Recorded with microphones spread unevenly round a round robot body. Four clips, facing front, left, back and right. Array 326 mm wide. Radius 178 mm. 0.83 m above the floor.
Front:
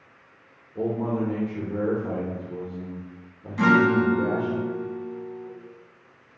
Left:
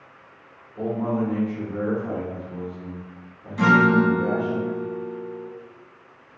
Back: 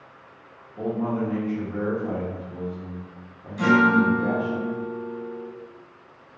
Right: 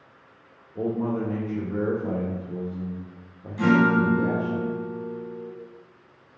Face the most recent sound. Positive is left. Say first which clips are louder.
# left 2 dB, back 1 dB
turn(degrees=55)